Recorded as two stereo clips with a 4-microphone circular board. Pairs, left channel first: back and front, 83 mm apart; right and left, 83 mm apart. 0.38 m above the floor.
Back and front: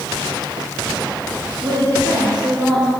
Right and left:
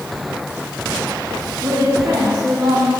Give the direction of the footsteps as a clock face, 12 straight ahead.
I don't hear footsteps.